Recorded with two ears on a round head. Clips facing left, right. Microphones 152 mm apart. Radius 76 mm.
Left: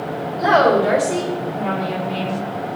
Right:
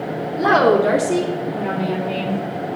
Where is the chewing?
I don't hear chewing.